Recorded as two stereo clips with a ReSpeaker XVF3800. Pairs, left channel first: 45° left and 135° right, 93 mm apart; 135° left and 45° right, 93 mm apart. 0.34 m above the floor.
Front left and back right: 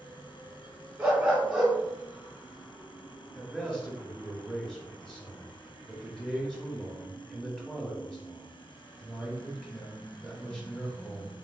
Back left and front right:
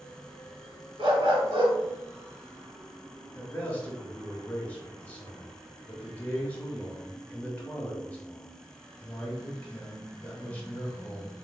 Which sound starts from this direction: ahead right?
A dog barking, at 1.0 s.